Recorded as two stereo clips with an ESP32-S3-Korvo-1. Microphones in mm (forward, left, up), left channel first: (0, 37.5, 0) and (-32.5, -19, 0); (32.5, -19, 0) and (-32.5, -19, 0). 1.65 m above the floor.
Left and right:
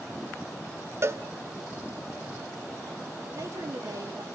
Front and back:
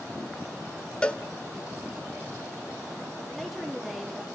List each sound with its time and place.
1.0 s a cowbell: 75° right, 0.9 m
3.3 s a woman speaking: 95° right, 3 m